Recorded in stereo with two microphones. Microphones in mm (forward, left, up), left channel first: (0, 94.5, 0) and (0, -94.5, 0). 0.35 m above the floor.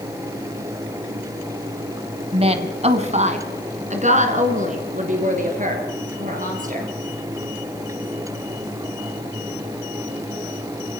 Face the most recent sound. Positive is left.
turn(degrees=-45)  # may be behind; listen again after turning